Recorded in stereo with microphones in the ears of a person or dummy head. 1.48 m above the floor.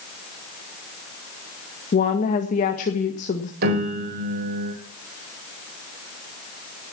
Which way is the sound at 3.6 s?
50° right (ahead or behind).